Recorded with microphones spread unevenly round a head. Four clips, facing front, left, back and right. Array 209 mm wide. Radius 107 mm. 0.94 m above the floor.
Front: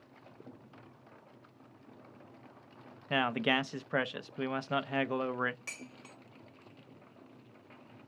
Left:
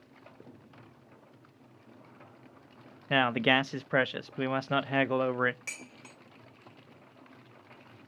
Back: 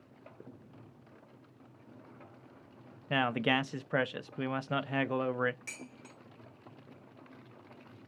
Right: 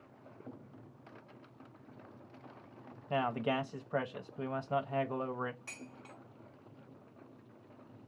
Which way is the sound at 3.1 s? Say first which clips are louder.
Left 7 dB, back 1 dB; 65° left.